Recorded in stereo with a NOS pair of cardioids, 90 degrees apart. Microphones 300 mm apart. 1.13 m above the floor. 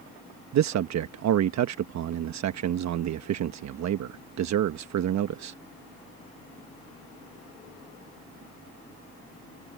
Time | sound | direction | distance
0.5 | a man speaking | 65° right | ?